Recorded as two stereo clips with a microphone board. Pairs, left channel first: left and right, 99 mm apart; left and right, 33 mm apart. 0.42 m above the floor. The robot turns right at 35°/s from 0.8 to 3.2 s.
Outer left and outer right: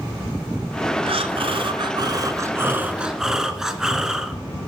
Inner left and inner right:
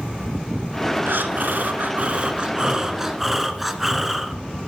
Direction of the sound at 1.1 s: 80° right.